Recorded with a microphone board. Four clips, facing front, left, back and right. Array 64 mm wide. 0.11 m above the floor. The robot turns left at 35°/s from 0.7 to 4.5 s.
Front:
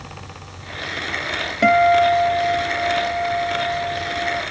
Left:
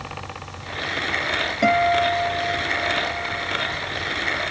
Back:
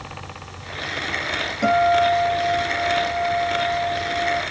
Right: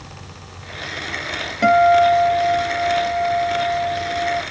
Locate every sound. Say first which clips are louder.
1.6 s a guitar: right 7 dB, front 3 dB; 25° right, 2.5 m; by 4.4 s 120° right, 2.5 m